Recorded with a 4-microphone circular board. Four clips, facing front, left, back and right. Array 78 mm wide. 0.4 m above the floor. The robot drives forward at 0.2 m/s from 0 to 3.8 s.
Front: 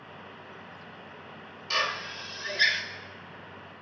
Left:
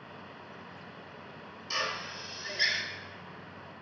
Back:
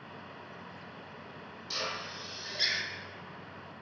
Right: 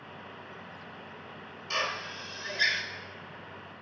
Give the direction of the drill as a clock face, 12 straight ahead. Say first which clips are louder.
Right 2 dB, front 8 dB; 1 o'clock.